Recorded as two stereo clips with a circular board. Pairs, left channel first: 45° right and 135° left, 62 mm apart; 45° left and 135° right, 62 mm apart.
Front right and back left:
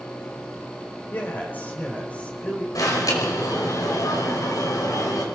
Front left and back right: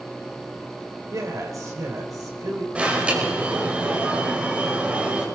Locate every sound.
1.1 s a man speaking: 105° right, 4 m; by 2.6 s 115° right, 5 m
2.8 s an alarm: 65° right, 5 m